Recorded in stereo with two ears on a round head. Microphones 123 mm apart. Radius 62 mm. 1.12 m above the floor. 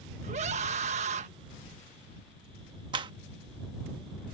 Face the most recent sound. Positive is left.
turn(degrees=-35)  # may be behind; listen again after turning